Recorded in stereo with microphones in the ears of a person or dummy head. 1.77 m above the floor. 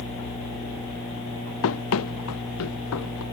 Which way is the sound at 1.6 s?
80° left.